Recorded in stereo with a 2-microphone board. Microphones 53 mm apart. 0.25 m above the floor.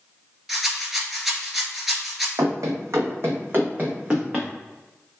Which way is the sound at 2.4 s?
80° right.